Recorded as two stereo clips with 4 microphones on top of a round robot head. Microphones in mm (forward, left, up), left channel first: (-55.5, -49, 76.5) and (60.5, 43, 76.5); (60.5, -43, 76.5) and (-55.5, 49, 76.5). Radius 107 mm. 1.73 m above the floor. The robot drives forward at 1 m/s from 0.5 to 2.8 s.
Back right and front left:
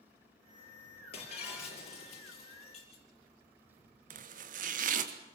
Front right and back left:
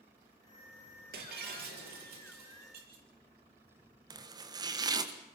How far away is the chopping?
About 1.4 m.